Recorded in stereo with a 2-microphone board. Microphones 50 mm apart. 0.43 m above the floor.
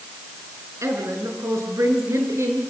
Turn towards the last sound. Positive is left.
turn(degrees=-65)  # may be behind; listen again after turning